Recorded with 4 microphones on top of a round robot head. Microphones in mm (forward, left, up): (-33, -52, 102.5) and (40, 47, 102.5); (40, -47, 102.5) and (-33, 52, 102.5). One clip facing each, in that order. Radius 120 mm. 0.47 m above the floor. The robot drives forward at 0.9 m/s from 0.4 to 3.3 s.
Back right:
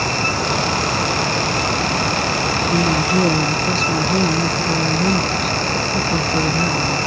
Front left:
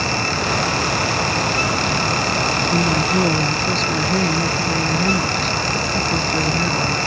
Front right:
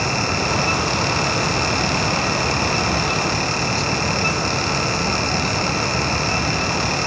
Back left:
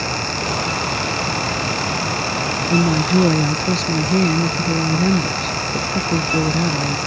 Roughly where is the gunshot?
I don't hear a gunshot.